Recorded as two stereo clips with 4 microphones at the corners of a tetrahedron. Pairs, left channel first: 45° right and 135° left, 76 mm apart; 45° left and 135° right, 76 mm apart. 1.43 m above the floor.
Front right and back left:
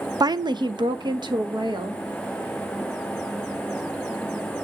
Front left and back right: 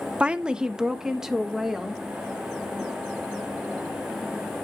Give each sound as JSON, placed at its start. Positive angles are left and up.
{"t": 0.2, "sound": "a woman speaking", "azimuth_deg": 155, "distance_m": 0.6}